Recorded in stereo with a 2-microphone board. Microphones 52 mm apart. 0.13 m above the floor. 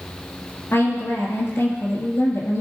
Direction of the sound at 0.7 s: 60° left (ahead or behind).